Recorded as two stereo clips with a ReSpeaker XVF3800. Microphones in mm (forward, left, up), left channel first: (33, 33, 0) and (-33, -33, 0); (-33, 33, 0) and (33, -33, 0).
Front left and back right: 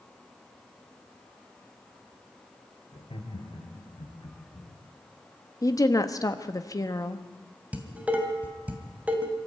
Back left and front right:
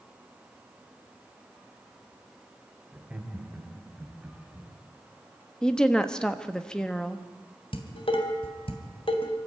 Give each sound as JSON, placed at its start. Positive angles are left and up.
{"t": 2.9, "sound": "laughter", "azimuth_deg": 30, "distance_m": 3.0}
{"t": 5.6, "sound": "a woman speaking", "azimuth_deg": 60, "distance_m": 1.2}
{"t": 7.7, "sound": "dishes clattering", "azimuth_deg": 150, "distance_m": 2.5}